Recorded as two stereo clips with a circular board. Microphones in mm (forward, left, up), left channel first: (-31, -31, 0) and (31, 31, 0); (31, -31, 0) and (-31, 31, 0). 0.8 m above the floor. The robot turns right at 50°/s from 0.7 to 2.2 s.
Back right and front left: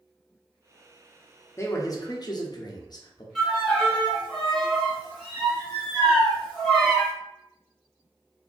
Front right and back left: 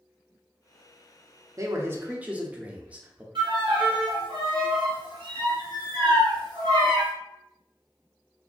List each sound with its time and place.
1.6 s a man speaking: 175° left, 0.5 m; by 3.2 s 155° right, 0.5 m
3.4 s a violin: 135° left, 1.4 m